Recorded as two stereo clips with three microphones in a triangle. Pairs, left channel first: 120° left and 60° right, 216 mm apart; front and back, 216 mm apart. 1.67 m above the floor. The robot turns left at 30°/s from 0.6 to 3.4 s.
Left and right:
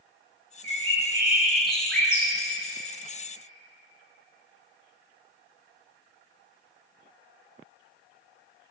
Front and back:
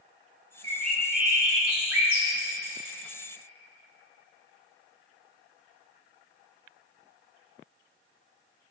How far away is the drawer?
I don't hear a drawer.